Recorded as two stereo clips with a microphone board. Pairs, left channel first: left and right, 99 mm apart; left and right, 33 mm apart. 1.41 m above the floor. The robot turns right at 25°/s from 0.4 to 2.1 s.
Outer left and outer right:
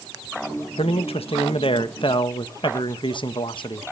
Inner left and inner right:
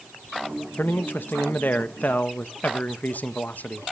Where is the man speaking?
90° left, 1.5 m; by 3.8 s 125° left, 1.5 m.